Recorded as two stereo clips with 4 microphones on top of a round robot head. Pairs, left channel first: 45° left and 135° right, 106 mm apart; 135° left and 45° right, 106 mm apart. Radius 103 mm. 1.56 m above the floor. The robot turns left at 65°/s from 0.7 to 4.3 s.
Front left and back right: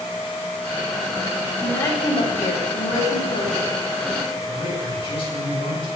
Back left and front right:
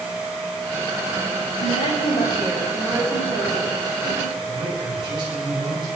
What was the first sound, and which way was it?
A woman speaking, 125° left.